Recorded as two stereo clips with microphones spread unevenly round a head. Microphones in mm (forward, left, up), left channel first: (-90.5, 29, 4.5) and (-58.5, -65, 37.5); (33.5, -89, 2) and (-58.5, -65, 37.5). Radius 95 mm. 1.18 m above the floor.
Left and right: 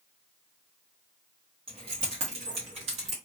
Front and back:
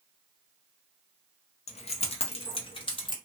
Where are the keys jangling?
30° right, 0.6 m; by 3.1 s 55° right, 1.3 m.